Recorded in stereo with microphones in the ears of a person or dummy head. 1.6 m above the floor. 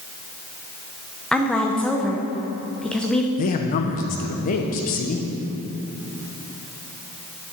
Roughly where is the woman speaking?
Centre.